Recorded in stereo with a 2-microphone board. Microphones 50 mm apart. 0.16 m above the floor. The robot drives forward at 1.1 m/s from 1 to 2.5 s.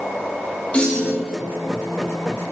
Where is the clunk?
25° left (ahead or behind), 8 m.